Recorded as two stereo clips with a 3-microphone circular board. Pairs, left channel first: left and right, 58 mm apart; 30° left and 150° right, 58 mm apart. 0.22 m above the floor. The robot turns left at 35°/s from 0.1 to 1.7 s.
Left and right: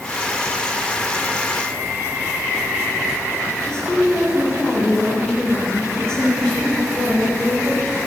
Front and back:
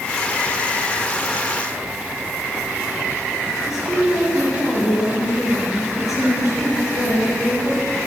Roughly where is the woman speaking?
Ahead.